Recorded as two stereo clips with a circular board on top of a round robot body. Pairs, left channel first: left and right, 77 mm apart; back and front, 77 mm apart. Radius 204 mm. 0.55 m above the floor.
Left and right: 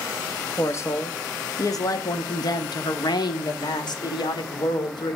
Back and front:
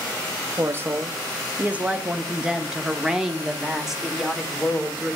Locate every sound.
0.6 s a woman speaking: 45° left, 1.6 m; by 5.2 s 90° left, 3.5 m